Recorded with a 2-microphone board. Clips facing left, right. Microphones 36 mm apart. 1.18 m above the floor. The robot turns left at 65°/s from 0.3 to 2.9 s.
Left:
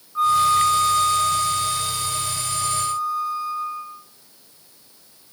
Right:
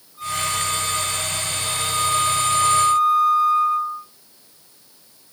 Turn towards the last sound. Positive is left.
turn(degrees=-80)